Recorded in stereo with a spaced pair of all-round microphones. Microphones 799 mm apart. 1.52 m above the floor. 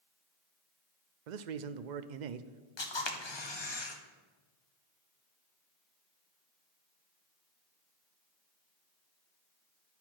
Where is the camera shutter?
35° left (ahead or behind), 0.8 m.